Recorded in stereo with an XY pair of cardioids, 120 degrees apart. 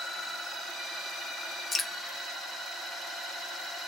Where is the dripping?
30° left, 0.9 m.